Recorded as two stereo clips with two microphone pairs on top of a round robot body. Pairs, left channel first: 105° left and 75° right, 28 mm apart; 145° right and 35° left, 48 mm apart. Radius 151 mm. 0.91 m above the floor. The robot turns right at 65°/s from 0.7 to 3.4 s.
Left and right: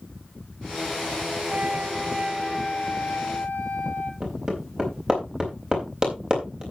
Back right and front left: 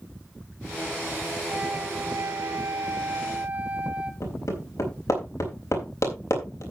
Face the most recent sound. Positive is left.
turn(degrees=-130)